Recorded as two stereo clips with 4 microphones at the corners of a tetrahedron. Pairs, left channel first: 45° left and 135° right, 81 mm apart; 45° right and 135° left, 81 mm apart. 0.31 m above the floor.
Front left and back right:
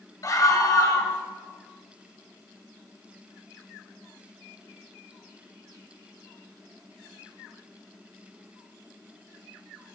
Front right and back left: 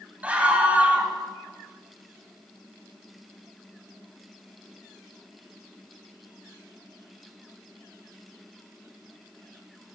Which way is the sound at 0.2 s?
70° left.